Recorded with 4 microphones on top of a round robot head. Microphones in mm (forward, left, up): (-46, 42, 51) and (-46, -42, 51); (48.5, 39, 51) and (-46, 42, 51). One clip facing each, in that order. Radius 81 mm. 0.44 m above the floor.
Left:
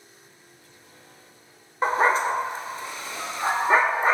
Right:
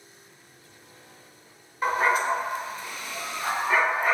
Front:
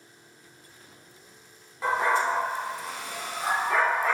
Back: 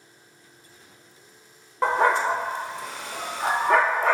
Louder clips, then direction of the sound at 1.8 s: Left 2 dB, back 4 dB; 150° left.